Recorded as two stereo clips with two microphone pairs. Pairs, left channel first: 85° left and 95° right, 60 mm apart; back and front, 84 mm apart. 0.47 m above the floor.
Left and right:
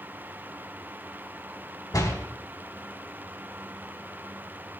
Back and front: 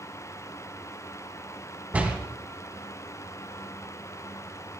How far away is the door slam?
About 2.5 m.